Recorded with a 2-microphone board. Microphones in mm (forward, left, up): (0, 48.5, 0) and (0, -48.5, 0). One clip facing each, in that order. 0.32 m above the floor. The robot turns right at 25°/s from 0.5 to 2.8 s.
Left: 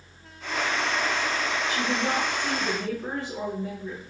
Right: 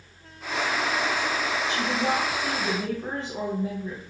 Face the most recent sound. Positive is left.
turn(degrees=-25)  # may be behind; listen again after turning